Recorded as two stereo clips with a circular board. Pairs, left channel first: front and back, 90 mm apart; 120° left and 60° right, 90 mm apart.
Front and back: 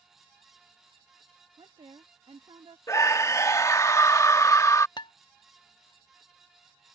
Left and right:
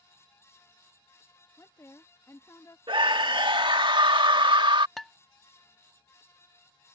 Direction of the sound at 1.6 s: 175° left.